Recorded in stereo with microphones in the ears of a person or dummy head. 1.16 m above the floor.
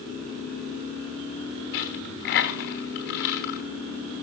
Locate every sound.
1.7 s a dropped coin: 35° left (ahead or behind), 1.0 m